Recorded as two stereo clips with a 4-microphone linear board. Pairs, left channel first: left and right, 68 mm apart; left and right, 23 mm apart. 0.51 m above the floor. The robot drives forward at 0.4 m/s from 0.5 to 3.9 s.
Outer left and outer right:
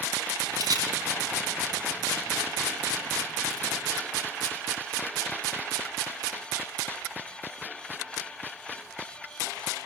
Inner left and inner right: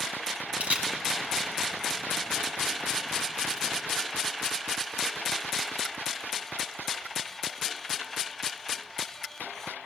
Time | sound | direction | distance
0.6 | a camera shutter | 65° right (ahead or behind) | 4 m